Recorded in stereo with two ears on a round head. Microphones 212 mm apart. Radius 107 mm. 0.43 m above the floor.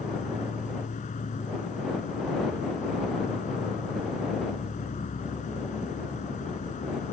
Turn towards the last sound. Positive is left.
turn(degrees=35)  # may be behind; listen again after turning